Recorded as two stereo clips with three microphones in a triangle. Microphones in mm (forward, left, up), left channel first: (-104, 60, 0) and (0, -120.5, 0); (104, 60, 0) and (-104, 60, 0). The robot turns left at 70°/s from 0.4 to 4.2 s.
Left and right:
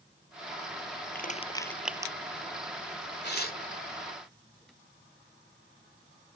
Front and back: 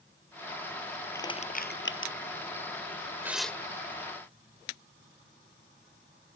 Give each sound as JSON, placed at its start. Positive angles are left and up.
{"t": 1.1, "sound": "crushing", "azimuth_deg": 80}
{"t": 3.2, "sound": "tearing paper", "azimuth_deg": 105}